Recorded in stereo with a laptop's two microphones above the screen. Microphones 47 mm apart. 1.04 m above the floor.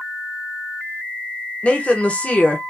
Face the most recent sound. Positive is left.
turn(degrees=25)  # may be behind; listen again after turning